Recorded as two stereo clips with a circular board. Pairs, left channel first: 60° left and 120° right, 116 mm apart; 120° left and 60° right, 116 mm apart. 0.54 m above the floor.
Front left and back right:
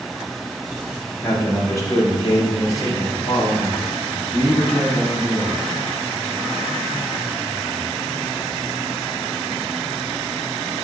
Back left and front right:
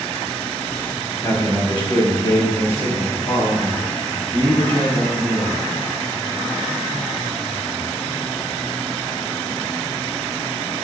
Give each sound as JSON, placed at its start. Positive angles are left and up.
{"t": 1.2, "sound": "a man speaking", "azimuth_deg": 90, "distance_m": 0.8}